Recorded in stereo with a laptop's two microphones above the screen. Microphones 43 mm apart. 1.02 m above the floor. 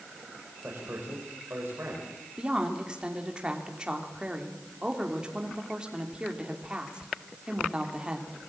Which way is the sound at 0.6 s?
55° right (ahead or behind).